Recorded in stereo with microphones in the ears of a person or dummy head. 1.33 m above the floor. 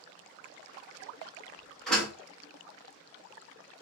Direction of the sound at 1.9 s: 5° left (ahead or behind).